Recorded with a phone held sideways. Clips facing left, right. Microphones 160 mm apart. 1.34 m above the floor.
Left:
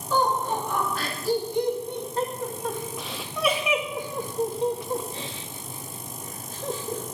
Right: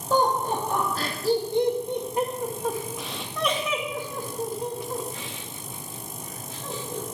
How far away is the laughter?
About 2.5 m.